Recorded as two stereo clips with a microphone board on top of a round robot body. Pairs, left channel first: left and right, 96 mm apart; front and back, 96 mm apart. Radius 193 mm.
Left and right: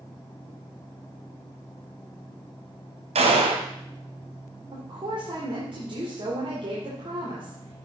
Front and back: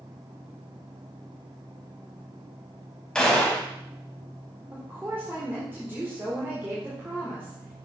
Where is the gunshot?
85° right, 0.8 m.